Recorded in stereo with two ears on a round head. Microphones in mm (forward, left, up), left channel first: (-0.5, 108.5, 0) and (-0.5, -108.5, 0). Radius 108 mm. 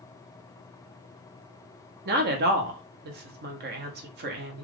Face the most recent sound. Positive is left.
turn(degrees=-40)  # may be behind; listen again after turning